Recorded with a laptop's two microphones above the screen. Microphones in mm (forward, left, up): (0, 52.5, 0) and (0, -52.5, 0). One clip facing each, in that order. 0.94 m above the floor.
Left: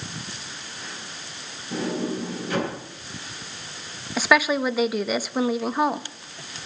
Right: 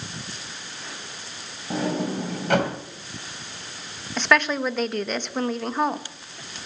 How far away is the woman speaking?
About 0.8 m.